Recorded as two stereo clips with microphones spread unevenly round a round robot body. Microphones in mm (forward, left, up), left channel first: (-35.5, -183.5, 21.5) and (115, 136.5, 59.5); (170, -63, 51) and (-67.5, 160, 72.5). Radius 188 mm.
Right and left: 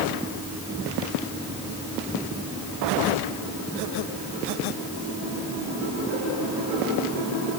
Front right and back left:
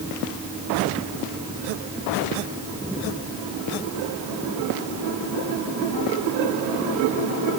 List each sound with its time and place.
Only background noise.